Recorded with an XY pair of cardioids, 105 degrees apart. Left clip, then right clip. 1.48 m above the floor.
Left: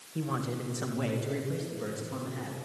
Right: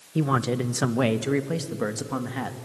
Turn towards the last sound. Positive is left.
turn(degrees=-70)